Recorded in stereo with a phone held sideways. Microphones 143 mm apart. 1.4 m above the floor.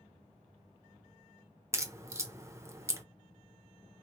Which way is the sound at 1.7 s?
20° right (ahead or behind).